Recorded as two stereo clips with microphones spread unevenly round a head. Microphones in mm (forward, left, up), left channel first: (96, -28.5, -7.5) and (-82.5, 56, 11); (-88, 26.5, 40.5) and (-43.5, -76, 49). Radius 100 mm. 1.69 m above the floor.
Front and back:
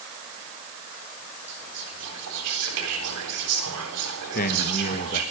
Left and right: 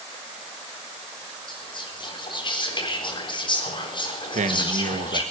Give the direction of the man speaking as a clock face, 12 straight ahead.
3 o'clock.